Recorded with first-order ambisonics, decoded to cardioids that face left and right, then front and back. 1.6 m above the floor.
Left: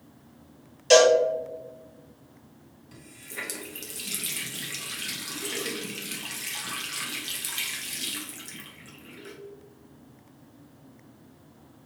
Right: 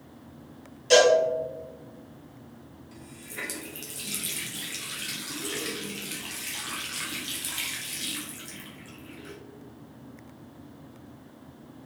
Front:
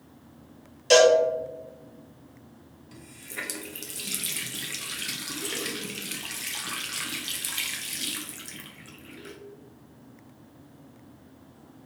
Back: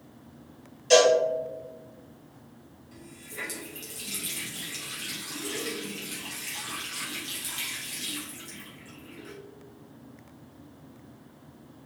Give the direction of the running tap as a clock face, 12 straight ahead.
11 o'clock.